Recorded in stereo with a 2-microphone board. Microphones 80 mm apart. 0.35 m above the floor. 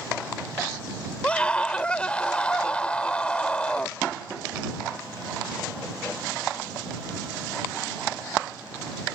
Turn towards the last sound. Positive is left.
turn(degrees=15)  # may be behind; listen again after turning